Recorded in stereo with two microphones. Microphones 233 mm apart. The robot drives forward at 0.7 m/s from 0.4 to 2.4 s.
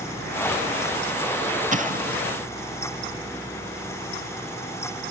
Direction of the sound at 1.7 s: 35° right (ahead or behind).